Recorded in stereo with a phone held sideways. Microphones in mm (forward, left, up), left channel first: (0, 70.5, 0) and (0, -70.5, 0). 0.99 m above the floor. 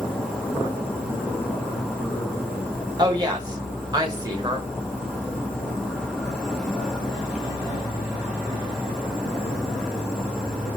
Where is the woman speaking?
25° right (ahead or behind), 1.1 m.